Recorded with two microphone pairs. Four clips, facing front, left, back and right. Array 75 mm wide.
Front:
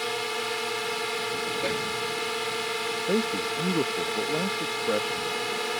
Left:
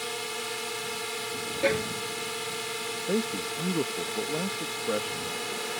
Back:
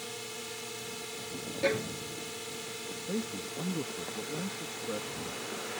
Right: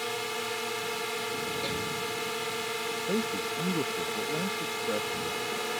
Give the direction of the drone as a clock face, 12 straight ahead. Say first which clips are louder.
Right 2 dB, front 13 dB; 12 o'clock.